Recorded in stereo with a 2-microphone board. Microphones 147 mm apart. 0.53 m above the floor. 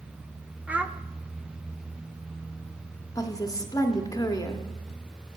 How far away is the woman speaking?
About 0.8 m.